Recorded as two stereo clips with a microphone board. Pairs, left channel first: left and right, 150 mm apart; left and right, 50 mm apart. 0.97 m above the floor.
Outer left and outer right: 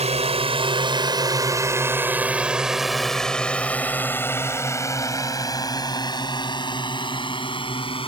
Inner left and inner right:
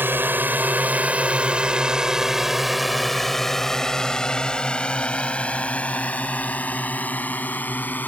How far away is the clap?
No clap in this recording.